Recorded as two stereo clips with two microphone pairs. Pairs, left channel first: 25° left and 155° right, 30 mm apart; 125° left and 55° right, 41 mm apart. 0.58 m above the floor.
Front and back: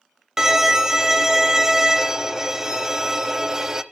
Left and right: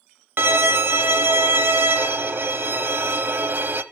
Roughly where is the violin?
Right.